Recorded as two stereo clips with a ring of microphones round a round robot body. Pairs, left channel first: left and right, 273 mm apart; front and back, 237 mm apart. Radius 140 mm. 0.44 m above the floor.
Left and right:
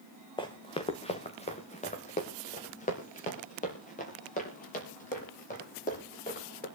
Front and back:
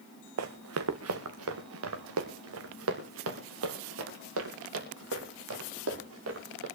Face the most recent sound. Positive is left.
turn(degrees=150)